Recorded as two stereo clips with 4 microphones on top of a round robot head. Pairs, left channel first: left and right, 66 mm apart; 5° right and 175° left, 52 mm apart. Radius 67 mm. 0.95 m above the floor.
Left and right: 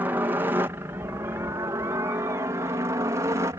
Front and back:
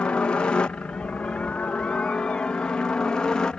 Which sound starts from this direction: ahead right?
A helicopter, at 0.0 s.